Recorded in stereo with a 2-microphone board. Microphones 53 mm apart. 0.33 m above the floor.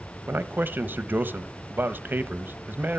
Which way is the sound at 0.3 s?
40° right (ahead or behind).